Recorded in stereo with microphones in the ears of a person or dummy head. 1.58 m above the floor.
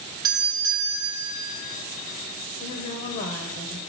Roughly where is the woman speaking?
Left.